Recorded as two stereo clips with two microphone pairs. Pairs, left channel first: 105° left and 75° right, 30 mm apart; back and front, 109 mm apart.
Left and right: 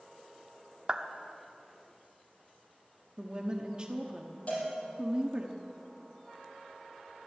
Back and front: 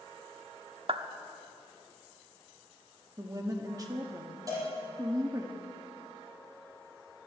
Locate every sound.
0.9 s a clap: 15° right, 0.8 m
3.2 s a woman speaking: 30° right, 1.0 m
4.5 s a cowbell: 60° left, 5.5 m